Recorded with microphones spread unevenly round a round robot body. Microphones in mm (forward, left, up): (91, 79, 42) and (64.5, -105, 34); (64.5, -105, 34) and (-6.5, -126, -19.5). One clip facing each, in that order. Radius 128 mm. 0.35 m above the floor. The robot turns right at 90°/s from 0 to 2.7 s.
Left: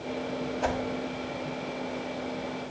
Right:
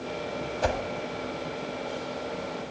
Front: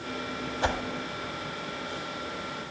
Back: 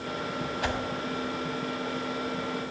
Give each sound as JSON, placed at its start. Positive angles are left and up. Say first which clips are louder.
{"t": 0.6, "sound": "a whoosh", "louder": "right 3 dB, front 4 dB", "azimuth_deg": -55, "distance_m": 1.3}